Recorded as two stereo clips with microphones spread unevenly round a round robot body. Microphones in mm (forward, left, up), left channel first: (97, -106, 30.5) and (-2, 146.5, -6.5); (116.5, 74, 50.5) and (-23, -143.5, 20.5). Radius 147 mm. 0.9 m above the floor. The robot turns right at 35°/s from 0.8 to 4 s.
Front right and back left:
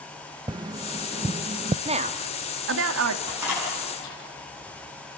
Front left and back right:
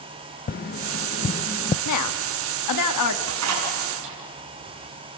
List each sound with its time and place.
0.5 s tapping: 75° left, 0.6 m; by 1.8 s 105° left, 0.6 m
1.9 s a woman speaking: 45° left, 1.8 m; by 3.2 s 90° left, 1.8 m
3.3 s a door slam: 170° right, 7.5 m; by 4.1 s 145° right, 7.5 m